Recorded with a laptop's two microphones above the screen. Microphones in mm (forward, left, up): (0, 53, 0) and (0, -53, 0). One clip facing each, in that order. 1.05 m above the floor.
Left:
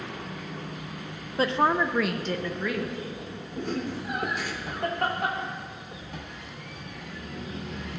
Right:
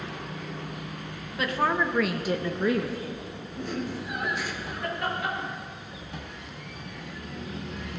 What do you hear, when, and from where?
1.4 s a woman speaking: 30° left (ahead or behind), 0.8 m; by 3.2 s 40° right (ahead or behind), 1.1 m
3.6 s laughter: 60° left (ahead or behind), 3 m